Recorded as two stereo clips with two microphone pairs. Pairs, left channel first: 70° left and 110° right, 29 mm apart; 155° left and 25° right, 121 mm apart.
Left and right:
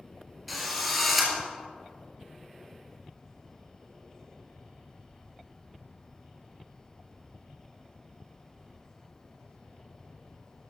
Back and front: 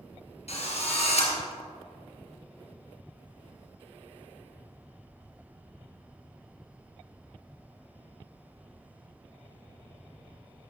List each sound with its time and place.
0.5 s a drill: 165° left, 3 m